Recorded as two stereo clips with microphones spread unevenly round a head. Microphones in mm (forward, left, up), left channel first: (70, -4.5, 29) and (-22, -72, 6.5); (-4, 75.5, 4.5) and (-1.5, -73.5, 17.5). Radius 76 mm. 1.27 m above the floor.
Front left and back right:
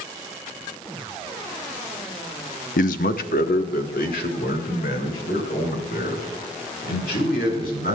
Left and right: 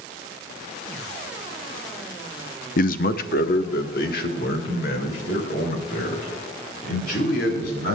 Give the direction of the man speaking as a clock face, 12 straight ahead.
10 o'clock.